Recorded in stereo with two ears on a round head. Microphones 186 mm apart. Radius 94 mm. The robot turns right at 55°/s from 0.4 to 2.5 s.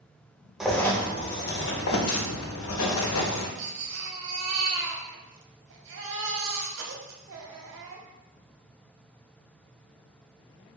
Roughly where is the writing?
Ahead.